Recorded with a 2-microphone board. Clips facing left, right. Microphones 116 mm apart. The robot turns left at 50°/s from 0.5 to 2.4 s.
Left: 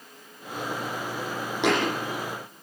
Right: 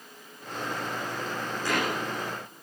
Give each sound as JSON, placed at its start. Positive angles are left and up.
{"t": 1.6, "sound": "a thud", "side_deg": 85, "distance_m": 9.0}